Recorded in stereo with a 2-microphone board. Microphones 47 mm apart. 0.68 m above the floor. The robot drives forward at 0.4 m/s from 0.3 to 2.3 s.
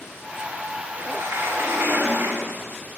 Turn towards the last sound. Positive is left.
turn(degrees=-80)